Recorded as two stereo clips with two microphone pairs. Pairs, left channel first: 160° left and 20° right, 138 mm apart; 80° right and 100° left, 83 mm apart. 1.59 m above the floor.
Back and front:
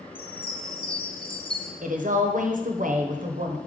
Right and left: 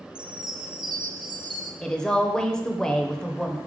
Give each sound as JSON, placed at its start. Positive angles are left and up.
{"t": 0.1, "sound": "a chime", "azimuth_deg": 115, "distance_m": 0.7}
{"t": 1.8, "sound": "a woman speaking", "azimuth_deg": 0, "distance_m": 0.9}